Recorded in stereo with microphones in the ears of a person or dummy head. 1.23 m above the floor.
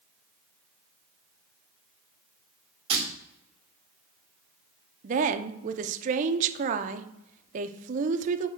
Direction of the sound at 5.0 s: 45° right (ahead or behind).